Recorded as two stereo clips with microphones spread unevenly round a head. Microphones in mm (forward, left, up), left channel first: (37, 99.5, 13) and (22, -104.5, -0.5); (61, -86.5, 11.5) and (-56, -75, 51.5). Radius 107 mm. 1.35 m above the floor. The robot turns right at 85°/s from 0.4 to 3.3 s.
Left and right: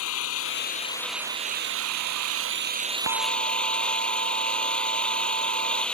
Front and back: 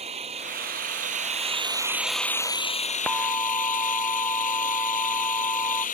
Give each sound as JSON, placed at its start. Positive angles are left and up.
{"t": 0.0, "sound": "an engine running", "azimuth_deg": 115}
{"t": 3.1, "sound": "an alarm", "azimuth_deg": -85}